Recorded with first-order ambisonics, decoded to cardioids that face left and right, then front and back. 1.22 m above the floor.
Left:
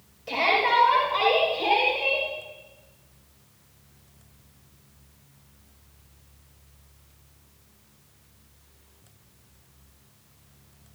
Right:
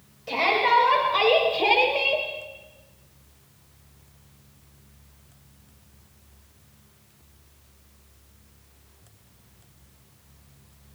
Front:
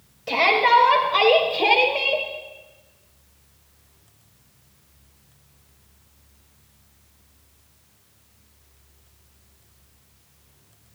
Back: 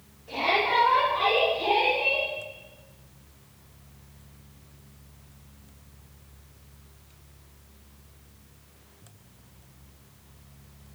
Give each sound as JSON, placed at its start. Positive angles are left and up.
{"t": 0.3, "sound": "a shout", "azimuth_deg": 0, "distance_m": 4.5}